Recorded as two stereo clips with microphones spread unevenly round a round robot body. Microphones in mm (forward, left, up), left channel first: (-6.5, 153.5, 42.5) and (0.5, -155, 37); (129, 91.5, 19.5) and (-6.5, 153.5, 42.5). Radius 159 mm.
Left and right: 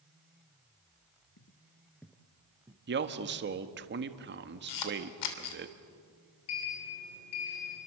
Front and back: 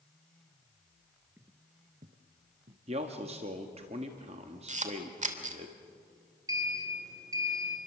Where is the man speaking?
140° right, 1.4 m.